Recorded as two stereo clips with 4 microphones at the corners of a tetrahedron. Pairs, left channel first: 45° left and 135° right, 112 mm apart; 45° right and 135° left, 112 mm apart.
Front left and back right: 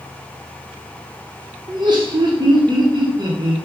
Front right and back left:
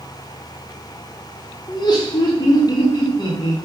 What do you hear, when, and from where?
1.7 s laughter: 90° right, 0.9 m